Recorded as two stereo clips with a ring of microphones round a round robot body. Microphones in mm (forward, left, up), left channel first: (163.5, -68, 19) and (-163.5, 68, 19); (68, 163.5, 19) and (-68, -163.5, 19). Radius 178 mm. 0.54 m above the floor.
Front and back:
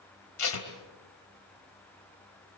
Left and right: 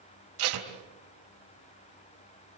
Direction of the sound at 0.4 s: 65° right.